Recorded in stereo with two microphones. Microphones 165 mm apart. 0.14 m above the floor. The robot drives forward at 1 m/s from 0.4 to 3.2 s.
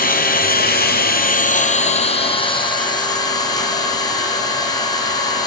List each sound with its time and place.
0.0 s an engine running: 65° left (ahead or behind), 1.2 m; by 5.5 s 25° left (ahead or behind), 2.5 m